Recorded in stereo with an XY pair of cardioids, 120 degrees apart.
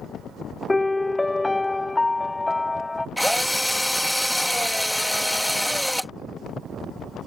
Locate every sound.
0.7 s a piano: 10° left
3.2 s a drill: straight ahead